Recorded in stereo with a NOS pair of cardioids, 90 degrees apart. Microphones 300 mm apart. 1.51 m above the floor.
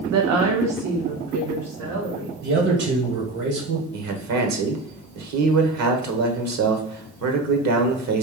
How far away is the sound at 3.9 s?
About 1.2 m.